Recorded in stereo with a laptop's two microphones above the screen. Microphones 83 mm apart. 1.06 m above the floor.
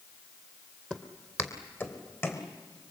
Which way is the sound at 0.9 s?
15° left (ahead or behind).